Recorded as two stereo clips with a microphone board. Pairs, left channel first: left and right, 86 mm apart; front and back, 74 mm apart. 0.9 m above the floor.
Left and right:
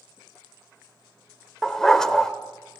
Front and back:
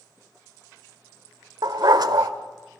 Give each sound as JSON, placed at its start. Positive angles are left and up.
{"t": 1.6, "sound": "a dog barking", "azimuth_deg": 175, "distance_m": 1.1}